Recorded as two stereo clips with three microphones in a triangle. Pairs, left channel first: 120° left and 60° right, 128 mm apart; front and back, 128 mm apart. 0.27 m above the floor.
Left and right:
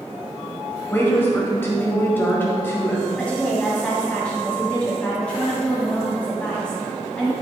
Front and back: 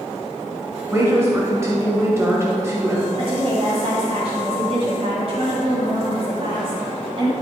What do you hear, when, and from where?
0.9 s a woman speaking: 160° left, 0.9 m
3.2 s a woman speaking: 160° right, 1.6 m